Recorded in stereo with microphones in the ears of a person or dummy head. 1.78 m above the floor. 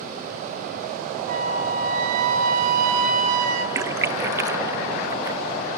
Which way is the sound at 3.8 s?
20° right (ahead or behind).